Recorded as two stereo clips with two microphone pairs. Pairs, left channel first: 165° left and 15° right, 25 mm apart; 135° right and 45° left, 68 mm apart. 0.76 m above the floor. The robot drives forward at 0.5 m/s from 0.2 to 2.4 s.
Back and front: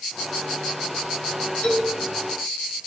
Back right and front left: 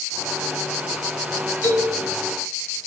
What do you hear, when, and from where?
1.6 s a man speaking: straight behind, 2.5 m